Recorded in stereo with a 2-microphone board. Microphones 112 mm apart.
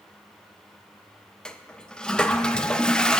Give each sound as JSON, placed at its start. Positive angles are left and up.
{"t": 1.4, "sound": "a toilet flushing", "side_deg": 5, "distance_m": 0.6}